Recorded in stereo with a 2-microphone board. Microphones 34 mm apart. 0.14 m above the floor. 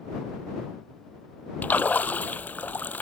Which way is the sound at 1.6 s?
60° left (ahead or behind).